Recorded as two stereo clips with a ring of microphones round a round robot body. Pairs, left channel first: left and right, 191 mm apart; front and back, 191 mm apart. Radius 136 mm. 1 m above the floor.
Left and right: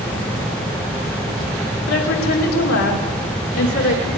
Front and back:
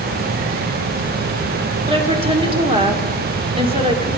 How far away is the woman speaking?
About 2.5 m.